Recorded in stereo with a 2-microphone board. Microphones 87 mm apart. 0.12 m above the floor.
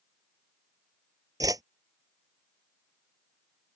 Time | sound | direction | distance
1.4 | a whoosh | 50° right (ahead or behind) | ?